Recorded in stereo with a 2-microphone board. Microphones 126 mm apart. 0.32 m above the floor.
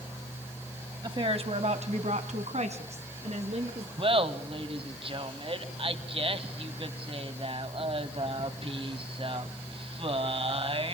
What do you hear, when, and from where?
1.0 s a woman speaking: 35° right (ahead or behind), 1.8 m; by 3.9 s 55° right (ahead or behind), 4.5 m
4.0 s laughter: 45° right (ahead or behind), 1.8 m